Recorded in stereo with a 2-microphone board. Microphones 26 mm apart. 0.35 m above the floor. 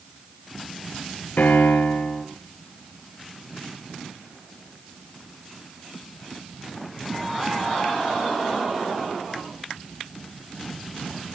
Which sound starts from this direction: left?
A piano, at 1.4 s.